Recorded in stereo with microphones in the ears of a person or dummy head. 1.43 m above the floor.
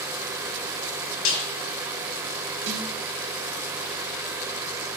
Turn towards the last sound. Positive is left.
turn(degrees=-75)  # may be behind; listen again after turning